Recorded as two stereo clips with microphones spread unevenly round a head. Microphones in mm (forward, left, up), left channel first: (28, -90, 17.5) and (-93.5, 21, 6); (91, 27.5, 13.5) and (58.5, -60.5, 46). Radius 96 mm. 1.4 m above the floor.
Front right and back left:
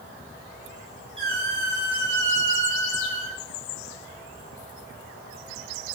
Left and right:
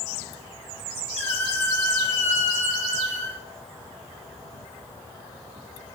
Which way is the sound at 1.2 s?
70° left.